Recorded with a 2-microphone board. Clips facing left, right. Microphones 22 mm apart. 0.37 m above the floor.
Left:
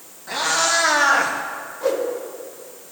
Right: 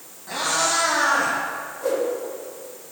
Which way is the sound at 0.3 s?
20° left (ahead or behind).